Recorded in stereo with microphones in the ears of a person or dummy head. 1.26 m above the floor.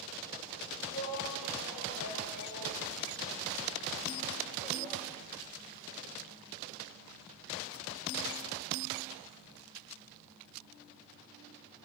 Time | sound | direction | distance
0.9 | a shout | 30° left (ahead or behind) | 5 m